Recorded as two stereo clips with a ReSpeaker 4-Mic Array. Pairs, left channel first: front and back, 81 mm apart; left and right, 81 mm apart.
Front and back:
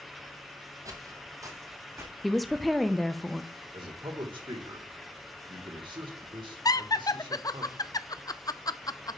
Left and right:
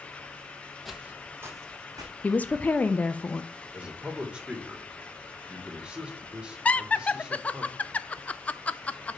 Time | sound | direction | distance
0.8 | footsteps | straight behind | 1.1 m
2.2 | a woman speaking | 90° left | 0.6 m
3.7 | a man speaking | 170° right | 1.9 m
6.7 | laughter | 20° left | 0.5 m